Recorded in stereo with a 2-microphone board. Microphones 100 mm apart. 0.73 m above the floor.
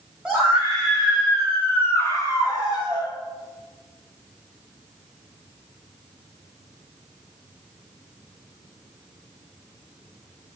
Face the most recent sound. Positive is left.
turn(degrees=40)  # may be behind; listen again after turning